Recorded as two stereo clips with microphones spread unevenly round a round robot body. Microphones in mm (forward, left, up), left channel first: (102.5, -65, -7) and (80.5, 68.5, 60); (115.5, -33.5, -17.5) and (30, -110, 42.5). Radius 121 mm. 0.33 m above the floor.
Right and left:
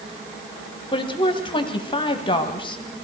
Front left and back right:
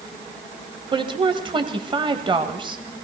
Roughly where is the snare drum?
No snare drum in this recording.